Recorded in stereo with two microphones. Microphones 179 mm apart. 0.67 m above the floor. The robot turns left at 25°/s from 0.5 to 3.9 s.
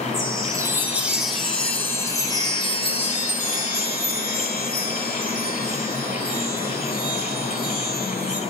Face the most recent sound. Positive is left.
turn(degrees=115)